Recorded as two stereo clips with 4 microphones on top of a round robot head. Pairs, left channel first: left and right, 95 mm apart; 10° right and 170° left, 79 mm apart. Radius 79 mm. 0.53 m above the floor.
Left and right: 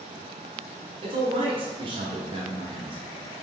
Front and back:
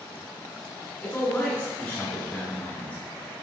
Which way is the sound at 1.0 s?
85° right.